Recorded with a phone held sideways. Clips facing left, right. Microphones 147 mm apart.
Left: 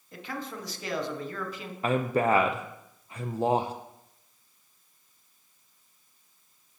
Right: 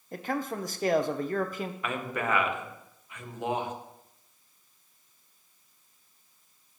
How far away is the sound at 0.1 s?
About 0.7 m.